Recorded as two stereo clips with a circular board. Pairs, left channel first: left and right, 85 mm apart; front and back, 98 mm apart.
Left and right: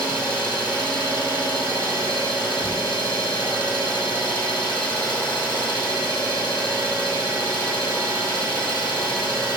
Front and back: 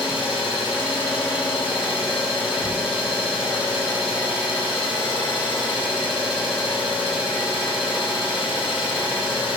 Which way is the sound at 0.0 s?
15° left.